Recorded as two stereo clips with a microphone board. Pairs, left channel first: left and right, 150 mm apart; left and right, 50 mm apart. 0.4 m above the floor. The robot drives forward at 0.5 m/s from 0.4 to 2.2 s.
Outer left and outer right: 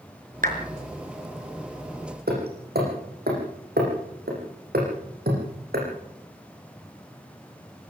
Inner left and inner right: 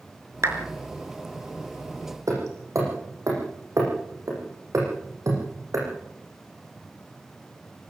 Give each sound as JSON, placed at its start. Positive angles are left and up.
{"t": 0.4, "sound": "a clap", "side_deg": -60, "distance_m": 4.5}
{"t": 2.3, "sound": "hammering", "side_deg": -80, "distance_m": 9.5}